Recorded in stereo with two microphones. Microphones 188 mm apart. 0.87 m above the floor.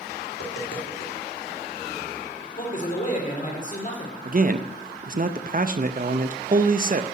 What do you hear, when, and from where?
0.3 s tapping: 75° left (ahead or behind), 2.5 m
2.6 s a man speaking: 45° left (ahead or behind), 2.5 m
4.2 s a man speaking: 45° right (ahead or behind), 0.5 m